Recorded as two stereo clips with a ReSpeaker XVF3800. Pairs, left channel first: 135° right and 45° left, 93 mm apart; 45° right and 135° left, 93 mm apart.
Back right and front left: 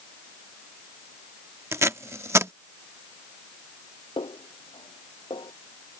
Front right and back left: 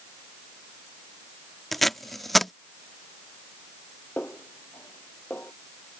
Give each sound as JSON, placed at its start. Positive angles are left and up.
{"t": 1.7, "sound": "tape being pulled", "azimuth_deg": 40}
{"t": 4.2, "sound": "a snare drum", "azimuth_deg": -115}